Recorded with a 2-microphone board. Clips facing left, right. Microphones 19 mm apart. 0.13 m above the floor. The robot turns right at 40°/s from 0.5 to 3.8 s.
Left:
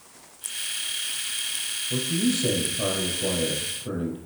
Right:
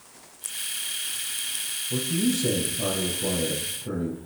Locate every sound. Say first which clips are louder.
1.9 s a man speaking: even; 25° left, 4.5 m; by 4.2 s 100° left, 4.5 m